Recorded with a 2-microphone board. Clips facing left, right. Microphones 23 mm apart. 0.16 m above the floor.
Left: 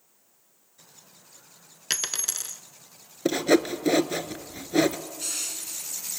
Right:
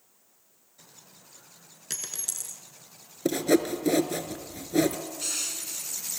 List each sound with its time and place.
1.9 s a dropped coin: 50° left (ahead or behind), 0.6 m
3.2 s sawing: 20° left (ahead or behind), 0.7 m
5.2 s crushing: 5° right (ahead or behind), 1.4 m